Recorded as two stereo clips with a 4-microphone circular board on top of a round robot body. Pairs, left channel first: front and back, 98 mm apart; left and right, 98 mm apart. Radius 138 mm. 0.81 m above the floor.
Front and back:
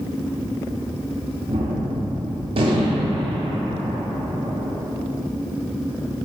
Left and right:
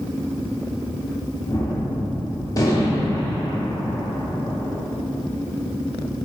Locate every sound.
1.5 s a gunshot: 145° left, 0.6 m